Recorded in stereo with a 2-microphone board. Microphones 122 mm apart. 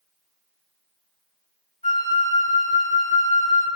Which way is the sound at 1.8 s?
85° left.